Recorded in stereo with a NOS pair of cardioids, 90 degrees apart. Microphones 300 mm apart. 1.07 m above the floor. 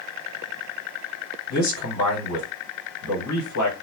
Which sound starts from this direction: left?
A man speaking, at 1.5 s.